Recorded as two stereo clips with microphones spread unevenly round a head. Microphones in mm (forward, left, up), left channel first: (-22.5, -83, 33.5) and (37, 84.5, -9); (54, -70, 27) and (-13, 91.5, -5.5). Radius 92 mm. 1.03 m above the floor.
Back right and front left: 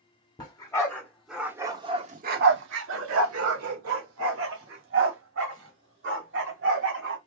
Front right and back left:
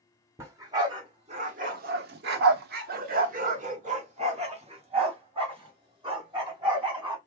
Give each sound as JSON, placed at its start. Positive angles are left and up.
{"t": 0.4, "sound": "a dog barking", "azimuth_deg": -170, "distance_m": 1.2}